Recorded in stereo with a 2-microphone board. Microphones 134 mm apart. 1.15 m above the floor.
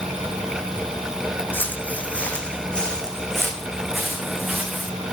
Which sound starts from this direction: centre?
Footsteps, at 1.5 s.